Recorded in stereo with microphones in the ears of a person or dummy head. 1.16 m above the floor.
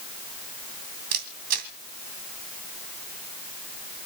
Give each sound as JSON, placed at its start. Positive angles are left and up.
{"t": 1.1, "sound": "a camera shutter", "side_deg": -55, "distance_m": 2.0}